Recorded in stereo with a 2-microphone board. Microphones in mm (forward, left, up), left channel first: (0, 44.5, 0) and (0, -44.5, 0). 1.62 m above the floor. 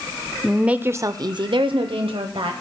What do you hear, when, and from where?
0.4 s a woman speaking: centre (ahead or behind), 0.6 m; by 2.5 s 90° right, 1.0 m